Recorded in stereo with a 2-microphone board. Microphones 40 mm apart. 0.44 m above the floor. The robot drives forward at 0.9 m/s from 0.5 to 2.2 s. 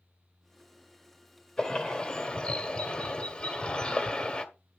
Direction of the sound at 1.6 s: 20° left (ahead or behind).